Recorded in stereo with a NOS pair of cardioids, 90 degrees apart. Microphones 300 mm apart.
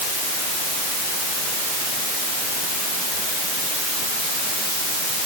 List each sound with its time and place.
Only background noise.